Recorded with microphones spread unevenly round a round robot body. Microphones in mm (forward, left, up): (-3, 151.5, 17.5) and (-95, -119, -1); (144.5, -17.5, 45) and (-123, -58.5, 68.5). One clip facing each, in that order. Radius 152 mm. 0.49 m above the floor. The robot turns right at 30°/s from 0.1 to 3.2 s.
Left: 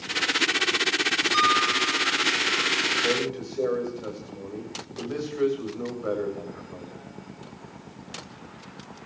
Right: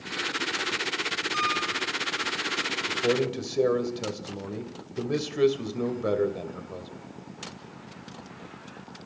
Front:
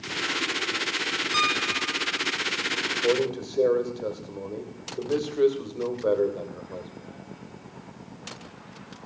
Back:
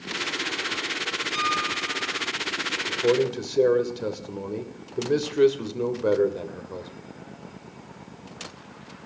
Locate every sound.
1.3 s a piano: 5° right, 1.7 m; by 2.2 s 20° left, 1.7 m
2.9 s a man speaking: 135° right, 2.5 m; by 6.9 s 125° right, 2.5 m